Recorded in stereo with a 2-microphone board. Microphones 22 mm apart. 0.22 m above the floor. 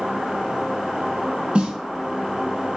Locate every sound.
1.6 s a snare drum: 55° right (ahead or behind), 0.5 m